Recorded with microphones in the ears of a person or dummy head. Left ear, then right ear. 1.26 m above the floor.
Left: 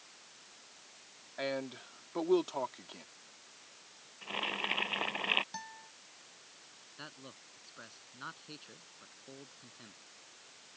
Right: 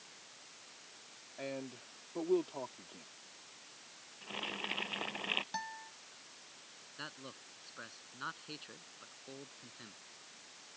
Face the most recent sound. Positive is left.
turn(degrees=-10)  # may be behind; listen again after turning